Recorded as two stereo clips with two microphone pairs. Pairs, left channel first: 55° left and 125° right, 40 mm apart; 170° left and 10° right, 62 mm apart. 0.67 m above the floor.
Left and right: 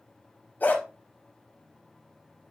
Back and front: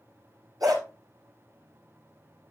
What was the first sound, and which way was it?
A dog barking, 10° left.